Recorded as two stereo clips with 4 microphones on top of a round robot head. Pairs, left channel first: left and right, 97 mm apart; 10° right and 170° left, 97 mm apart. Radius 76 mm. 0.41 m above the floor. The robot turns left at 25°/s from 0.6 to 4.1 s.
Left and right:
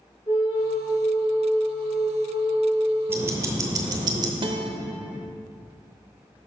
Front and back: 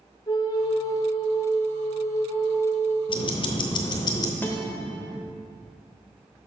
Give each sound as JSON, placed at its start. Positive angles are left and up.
{"t": 0.3, "sound": "a flute", "azimuth_deg": 30, "distance_m": 1.3}
{"t": 3.1, "sound": "ticking", "azimuth_deg": -25, "distance_m": 0.8}
{"t": 4.4, "sound": "a guitar", "azimuth_deg": -80, "distance_m": 0.9}